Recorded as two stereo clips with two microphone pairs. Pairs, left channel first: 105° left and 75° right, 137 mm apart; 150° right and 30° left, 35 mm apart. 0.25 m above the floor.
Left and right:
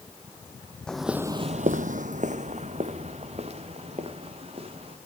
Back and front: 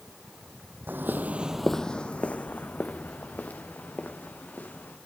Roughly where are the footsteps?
Ahead left.